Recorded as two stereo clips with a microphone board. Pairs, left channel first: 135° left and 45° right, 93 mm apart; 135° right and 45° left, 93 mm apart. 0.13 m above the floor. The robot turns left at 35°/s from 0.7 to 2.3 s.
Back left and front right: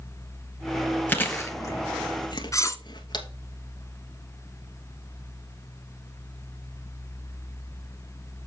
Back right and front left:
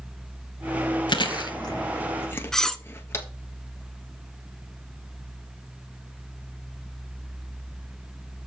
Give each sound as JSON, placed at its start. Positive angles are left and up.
{"t": 1.1, "sound": "chewing", "azimuth_deg": -155, "distance_m": 1.2}
{"t": 2.5, "sound": "cutlery clinking", "azimuth_deg": 140, "distance_m": 0.7}